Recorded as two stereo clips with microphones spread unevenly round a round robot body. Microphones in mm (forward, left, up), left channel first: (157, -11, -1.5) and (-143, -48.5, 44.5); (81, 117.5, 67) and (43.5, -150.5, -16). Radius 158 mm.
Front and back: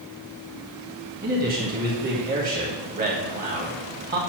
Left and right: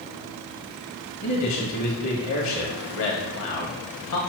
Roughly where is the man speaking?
Behind left.